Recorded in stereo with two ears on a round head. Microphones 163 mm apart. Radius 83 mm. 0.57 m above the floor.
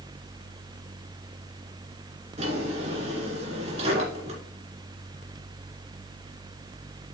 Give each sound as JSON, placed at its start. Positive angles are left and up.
{"t": 2.4, "sound": "a drawer", "side_deg": -35, "distance_m": 2.5}